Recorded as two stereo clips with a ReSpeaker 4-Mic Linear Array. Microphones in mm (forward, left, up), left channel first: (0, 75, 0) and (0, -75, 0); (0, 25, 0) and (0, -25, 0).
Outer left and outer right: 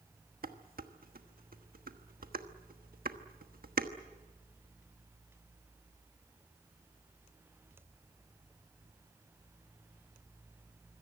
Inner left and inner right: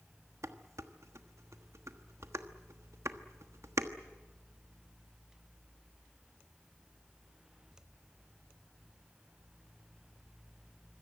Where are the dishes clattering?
80° right, 1.3 m.